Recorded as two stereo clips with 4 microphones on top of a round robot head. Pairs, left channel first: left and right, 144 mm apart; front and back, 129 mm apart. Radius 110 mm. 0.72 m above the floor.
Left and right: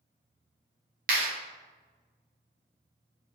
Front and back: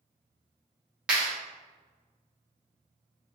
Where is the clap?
95° right, 0.9 m.